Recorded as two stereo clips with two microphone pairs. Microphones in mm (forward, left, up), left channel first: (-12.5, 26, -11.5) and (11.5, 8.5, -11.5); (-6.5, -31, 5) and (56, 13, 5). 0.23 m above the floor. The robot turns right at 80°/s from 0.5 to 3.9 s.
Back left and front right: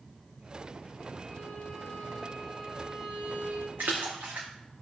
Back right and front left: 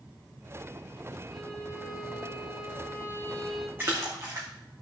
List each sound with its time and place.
1.3 s a violin: 125° left, 2 m; by 3.7 s 45° right, 2 m
3.8 s a splash: 30° right, 3.5 m; by 4.5 s 20° right, 3.5 m